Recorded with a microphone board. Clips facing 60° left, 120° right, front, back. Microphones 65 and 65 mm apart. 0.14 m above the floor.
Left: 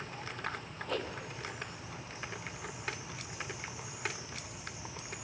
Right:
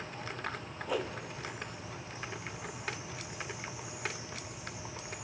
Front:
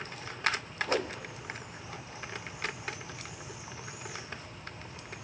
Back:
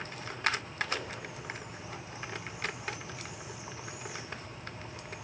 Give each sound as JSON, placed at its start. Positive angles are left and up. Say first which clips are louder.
{"t": 0.9, "sound": "a whoosh", "louder": "right 3 dB, front 6 dB", "azimuth_deg": -40, "distance_m": 1.9}